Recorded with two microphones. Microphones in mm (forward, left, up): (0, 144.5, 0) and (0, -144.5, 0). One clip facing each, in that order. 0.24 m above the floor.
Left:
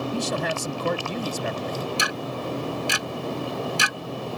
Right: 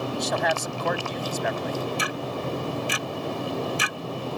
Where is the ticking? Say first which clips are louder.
Even; 90° left.